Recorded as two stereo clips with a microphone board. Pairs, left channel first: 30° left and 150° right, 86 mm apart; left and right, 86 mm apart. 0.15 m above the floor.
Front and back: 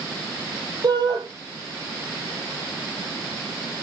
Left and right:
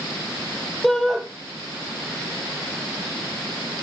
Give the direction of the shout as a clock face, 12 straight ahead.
6 o'clock.